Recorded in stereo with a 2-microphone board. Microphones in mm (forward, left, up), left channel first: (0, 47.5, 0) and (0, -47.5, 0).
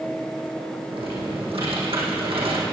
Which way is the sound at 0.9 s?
75° right (ahead or behind).